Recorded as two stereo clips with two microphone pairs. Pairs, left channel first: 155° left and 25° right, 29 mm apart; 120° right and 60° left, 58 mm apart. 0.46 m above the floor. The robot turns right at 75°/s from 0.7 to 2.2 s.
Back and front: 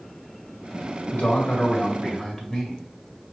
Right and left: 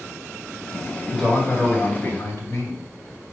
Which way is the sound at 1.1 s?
150° left.